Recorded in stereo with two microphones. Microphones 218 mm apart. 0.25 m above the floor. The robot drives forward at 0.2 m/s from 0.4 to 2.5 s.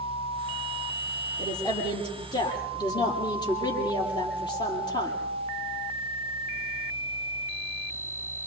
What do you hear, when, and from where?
1.4 s a woman speaking: 20° left (ahead or behind), 7 m